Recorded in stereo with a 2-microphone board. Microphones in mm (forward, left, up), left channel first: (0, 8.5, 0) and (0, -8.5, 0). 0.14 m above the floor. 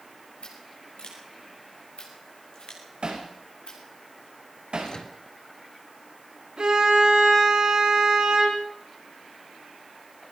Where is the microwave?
55° left (ahead or behind), 2 m.